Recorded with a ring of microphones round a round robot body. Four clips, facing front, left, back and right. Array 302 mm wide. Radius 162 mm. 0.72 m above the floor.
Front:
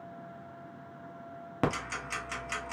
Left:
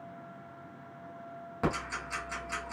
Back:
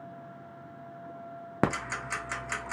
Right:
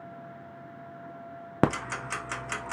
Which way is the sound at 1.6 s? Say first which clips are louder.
Right 6 dB, back 2 dB; 105° right.